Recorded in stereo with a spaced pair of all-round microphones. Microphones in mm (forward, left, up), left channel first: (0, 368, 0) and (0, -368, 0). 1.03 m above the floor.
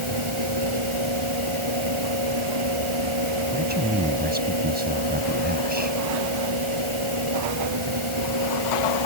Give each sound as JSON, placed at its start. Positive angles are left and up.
{"t": 0.0, "sound": "a fan", "side_deg": -40}
{"t": 3.5, "sound": "a man speaking", "side_deg": -10}